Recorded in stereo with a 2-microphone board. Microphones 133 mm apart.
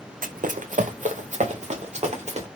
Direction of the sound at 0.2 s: 85° right.